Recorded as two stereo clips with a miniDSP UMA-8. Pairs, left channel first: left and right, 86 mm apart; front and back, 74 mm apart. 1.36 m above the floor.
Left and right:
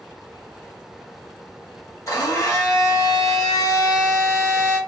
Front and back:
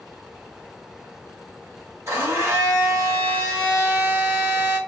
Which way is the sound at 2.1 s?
135° left.